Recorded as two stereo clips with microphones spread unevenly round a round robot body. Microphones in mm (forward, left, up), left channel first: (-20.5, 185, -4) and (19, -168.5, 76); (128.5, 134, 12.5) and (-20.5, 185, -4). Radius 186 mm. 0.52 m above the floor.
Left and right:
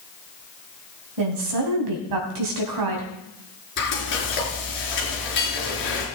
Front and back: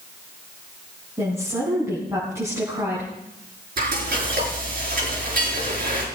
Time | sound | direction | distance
1.2 | a woman speaking | 120° right | 3.5 m
3.8 | frying | 155° left | 4.5 m